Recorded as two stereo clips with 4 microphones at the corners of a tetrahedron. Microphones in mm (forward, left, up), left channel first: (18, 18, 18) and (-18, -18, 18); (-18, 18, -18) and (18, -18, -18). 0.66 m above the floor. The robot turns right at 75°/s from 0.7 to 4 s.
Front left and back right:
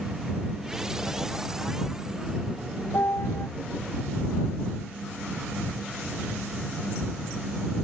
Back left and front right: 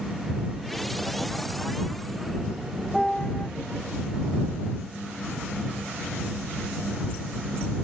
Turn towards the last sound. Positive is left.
turn(degrees=120)